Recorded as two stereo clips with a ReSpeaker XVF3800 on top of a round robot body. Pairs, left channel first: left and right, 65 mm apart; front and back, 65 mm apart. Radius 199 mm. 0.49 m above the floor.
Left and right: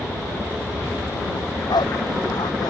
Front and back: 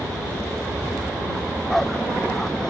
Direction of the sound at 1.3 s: 85° left.